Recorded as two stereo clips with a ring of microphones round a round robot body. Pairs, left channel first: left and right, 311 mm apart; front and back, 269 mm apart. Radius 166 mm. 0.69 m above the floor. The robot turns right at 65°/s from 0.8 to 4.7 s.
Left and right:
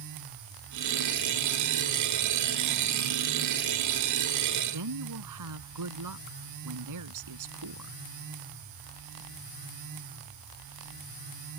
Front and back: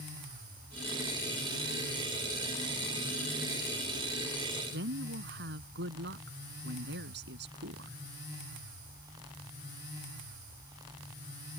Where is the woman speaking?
125° right; by 8.0 s 120° right.